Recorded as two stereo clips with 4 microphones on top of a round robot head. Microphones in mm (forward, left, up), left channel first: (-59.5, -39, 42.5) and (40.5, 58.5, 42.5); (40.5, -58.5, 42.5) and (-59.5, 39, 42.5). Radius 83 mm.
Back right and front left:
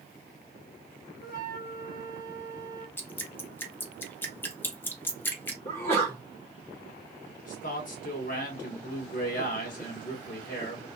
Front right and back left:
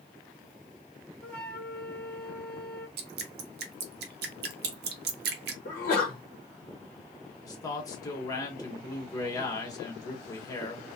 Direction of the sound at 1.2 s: 125° right.